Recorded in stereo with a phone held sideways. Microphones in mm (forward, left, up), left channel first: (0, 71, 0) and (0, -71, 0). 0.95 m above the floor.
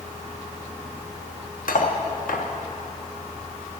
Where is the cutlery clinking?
85° left, 0.8 m.